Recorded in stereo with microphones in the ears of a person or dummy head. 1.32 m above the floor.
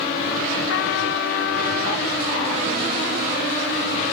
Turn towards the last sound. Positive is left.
turn(degrees=65)  # may be behind; listen again after turning